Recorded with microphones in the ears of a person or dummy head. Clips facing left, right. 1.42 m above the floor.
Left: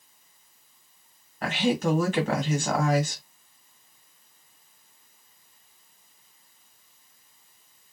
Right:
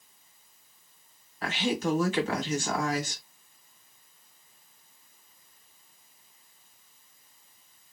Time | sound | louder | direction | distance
1.4 | a woman speaking | left 4 dB | 45° left (ahead or behind) | 1.3 m